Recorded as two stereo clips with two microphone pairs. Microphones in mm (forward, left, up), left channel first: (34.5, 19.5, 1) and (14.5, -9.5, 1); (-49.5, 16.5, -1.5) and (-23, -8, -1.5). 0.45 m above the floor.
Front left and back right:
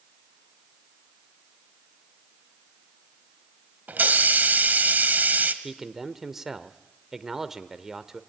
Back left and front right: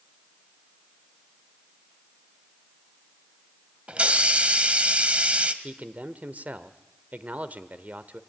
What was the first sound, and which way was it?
A hiss, 95° right.